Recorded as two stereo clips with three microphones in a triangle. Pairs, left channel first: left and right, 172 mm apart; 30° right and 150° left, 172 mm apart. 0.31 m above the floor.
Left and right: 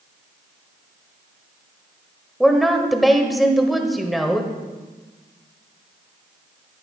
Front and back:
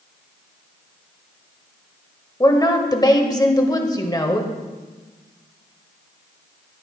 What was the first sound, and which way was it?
A woman speaking, straight ahead.